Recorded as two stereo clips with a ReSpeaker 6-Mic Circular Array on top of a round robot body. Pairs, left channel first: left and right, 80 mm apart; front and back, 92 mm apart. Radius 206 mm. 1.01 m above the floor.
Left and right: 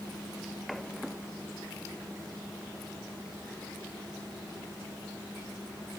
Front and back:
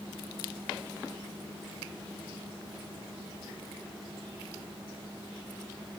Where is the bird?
No bird in this recording.